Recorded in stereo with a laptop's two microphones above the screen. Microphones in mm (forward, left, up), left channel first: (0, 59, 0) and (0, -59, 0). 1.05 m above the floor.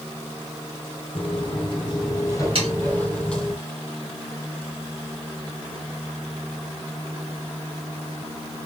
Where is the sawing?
50° right (ahead or behind), 2.5 m.